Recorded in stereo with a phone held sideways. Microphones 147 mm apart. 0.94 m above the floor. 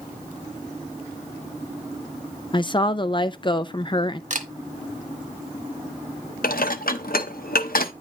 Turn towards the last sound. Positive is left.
turn(degrees=80)